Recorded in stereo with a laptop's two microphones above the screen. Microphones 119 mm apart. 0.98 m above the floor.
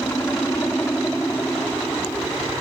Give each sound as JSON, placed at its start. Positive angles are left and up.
{"t": 0.0, "sound": "a helicopter", "side_deg": 15}